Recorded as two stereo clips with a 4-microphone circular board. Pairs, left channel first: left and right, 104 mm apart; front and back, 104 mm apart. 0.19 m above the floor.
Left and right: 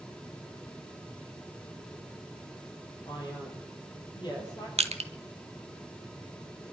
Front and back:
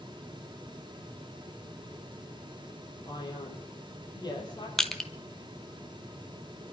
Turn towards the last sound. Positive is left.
turn(degrees=-85)